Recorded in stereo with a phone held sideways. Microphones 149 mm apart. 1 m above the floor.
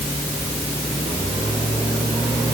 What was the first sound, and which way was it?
Only background noise.